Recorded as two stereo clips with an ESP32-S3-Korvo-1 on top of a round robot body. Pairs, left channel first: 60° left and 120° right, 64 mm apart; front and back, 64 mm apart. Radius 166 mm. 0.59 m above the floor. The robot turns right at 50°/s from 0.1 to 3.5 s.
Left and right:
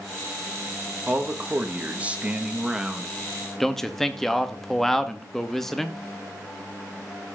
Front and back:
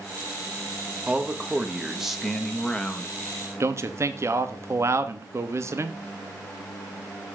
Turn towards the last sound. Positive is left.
turn(degrees=145)